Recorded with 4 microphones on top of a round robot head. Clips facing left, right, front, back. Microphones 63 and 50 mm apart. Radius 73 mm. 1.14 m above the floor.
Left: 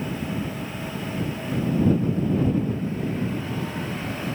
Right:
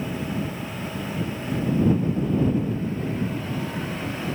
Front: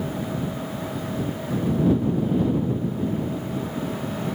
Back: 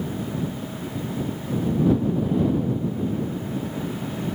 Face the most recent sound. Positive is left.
No sound to turn to.